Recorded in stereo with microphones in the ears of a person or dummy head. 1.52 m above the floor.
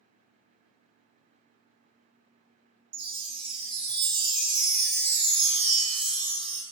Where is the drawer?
No drawer in this recording.